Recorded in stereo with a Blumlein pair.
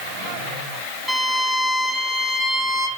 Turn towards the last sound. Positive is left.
turn(degrees=0)